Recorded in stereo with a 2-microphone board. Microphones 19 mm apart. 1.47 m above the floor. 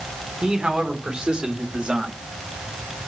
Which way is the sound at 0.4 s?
55° right (ahead or behind).